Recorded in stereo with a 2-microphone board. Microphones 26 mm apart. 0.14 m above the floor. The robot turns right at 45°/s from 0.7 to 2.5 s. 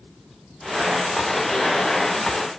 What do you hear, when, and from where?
Only background noise.